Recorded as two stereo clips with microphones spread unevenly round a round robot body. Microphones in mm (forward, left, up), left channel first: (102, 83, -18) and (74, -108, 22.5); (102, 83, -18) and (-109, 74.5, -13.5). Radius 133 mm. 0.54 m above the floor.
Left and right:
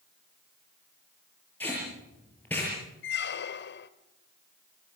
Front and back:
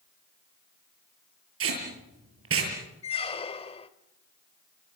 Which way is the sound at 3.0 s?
65° left.